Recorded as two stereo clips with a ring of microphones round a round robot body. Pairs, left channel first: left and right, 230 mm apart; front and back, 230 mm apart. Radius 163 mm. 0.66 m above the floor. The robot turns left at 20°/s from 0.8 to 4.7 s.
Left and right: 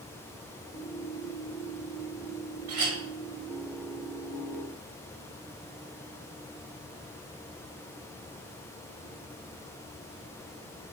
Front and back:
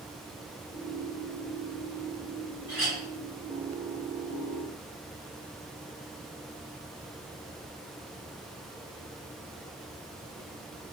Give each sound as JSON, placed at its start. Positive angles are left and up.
{"t": 2.7, "sound": "a clink", "azimuth_deg": -95, "distance_m": 1.0}